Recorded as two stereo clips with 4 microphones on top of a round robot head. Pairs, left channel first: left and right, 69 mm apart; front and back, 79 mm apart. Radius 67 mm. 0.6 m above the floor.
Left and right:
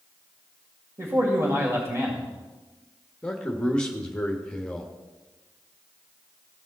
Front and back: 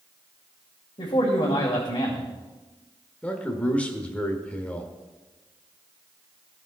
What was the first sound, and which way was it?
A man speaking, 45° right.